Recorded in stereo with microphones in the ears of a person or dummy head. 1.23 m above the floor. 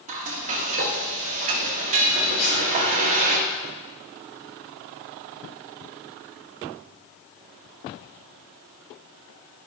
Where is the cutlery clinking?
40° left (ahead or behind), 2.5 m.